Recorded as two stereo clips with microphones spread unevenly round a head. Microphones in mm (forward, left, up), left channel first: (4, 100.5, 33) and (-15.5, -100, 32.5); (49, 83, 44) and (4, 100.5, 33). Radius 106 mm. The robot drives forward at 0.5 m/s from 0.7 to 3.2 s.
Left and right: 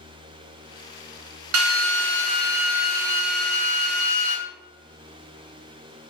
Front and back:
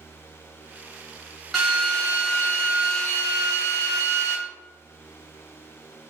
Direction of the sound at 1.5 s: 115° right.